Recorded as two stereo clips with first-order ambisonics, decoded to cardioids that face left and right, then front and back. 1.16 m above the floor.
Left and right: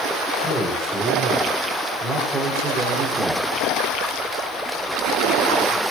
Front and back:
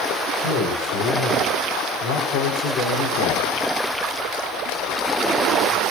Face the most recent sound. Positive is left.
turn(degrees=-20)